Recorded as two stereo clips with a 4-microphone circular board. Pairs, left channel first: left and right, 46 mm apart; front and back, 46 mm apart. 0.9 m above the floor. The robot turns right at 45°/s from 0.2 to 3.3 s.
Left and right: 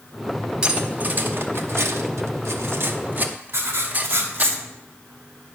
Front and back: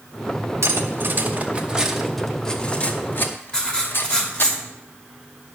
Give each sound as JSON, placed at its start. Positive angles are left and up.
{"t": 0.6, "sound": "cutlery clinking", "azimuth_deg": -160, "distance_m": 0.9}
{"t": 3.5, "sound": "writing", "azimuth_deg": -70, "distance_m": 1.6}